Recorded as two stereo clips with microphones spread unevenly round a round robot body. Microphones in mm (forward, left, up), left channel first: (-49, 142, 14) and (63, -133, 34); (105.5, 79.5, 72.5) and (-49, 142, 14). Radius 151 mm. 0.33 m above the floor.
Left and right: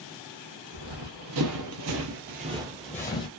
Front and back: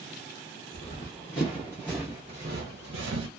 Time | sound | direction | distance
0.7 | running footsteps | 70° right | 1.0 m